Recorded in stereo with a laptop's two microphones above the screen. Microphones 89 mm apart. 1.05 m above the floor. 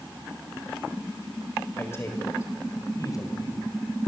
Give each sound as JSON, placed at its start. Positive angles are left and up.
{"t": 1.8, "sound": "a man speaking", "side_deg": 25, "distance_m": 4.5}